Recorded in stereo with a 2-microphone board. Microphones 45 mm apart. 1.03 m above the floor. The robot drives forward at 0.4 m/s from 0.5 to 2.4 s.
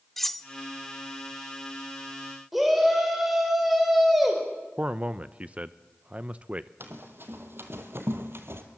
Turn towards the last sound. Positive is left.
turn(degrees=-60)  # may be behind; listen again after turning